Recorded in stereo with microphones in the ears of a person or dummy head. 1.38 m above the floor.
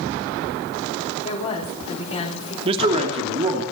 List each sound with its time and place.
1.2 s a woman speaking: 30° left (ahead or behind), 5 m
2.6 s a man speaking: 30° right (ahead or behind), 2.5 m